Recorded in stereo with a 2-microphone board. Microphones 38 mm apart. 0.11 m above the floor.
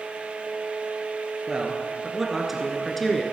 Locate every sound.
1.5 s a man speaking: 20° right (ahead or behind), 1.6 m; by 3.2 s 15° left (ahead or behind), 1.3 m